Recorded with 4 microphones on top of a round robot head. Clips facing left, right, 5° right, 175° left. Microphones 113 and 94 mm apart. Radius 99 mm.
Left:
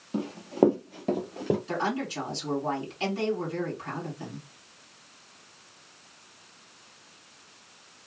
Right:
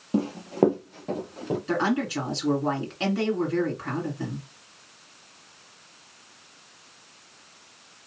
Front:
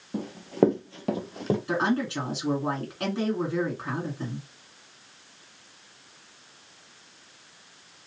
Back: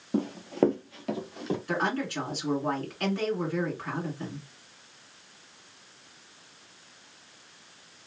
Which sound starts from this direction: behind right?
Running footsteps, at 0.1 s.